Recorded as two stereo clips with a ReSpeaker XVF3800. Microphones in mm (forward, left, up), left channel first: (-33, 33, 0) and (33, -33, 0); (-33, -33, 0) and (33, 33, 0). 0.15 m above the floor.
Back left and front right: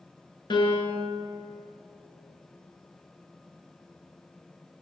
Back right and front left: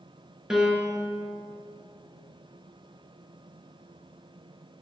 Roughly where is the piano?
Behind left.